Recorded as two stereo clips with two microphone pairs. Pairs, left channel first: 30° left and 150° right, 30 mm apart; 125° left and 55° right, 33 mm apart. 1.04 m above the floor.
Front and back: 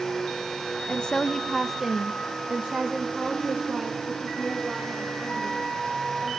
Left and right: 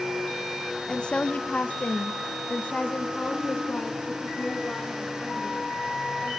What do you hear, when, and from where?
0.9 s a woman speaking: 65° left, 0.5 m; by 6.3 s 170° left, 2.5 m